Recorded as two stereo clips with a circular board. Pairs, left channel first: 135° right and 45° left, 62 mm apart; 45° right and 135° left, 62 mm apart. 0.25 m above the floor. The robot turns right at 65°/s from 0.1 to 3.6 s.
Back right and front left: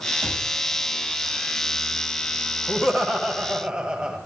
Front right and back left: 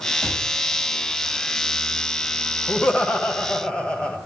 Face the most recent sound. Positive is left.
turn(degrees=-10)